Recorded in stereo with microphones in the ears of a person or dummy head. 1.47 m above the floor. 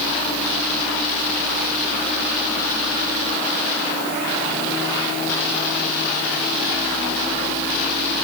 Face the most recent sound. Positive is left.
No sound to turn to.